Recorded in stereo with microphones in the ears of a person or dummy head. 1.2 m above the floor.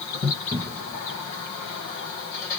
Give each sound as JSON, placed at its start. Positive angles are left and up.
{"t": 0.5, "sound": "a cupboard door", "side_deg": -25, "distance_m": 0.6}